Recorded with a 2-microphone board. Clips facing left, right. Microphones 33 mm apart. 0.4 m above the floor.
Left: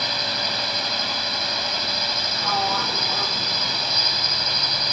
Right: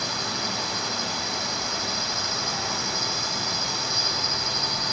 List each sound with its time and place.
0.0 s a drone: 45° left (ahead or behind)
2.4 s a sliding door: 50° left (ahead or behind)